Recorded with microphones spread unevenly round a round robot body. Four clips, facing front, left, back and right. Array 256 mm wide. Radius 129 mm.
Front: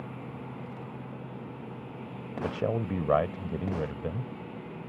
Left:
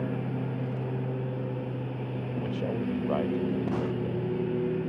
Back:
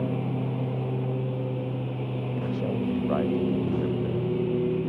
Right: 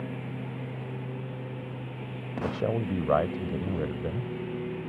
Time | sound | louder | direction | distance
0.0 | a lawn mower | left 5 dB, back 12 dB | 160° left | ?
2.4 | a man speaking | right 3 dB, even | 40° right | ?